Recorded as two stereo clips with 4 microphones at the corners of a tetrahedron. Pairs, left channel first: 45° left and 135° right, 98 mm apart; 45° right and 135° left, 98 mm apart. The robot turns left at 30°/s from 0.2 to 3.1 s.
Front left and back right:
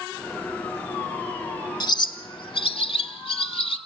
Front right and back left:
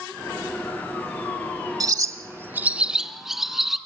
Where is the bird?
85° left, 0.9 m; by 3.8 s 50° left, 0.9 m.